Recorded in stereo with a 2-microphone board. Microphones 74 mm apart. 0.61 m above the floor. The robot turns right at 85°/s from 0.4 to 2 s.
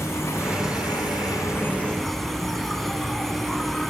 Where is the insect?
40° left; by 3.9 s 175° left.